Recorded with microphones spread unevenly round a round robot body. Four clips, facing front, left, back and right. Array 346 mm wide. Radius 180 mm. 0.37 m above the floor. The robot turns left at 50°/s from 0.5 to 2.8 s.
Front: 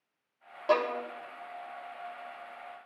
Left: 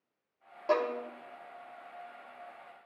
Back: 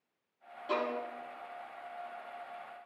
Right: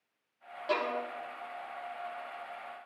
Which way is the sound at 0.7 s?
15° left.